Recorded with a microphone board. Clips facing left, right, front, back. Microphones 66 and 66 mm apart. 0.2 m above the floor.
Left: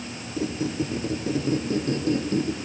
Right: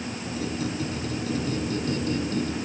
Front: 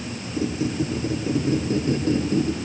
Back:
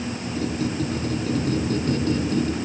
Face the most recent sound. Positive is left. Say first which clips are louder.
# left 4 dB, front 2 dB
turn(degrees=55)